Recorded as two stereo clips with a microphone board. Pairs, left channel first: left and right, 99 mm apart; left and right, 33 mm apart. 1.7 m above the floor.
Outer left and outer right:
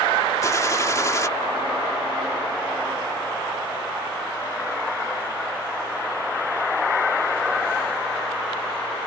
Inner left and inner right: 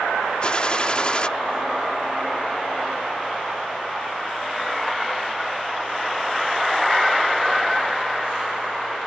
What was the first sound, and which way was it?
A gunshot, 35° left (ahead or behind).